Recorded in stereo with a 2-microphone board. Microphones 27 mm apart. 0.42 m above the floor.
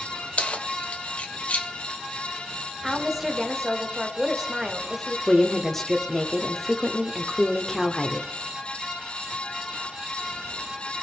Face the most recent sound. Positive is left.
turn(degrees=10)  # may be behind; listen again after turning